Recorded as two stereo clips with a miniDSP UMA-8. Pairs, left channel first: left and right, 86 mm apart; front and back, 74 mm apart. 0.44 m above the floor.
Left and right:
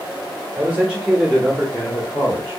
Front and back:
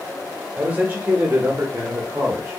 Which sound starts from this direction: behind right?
A man speaking, at 0.6 s.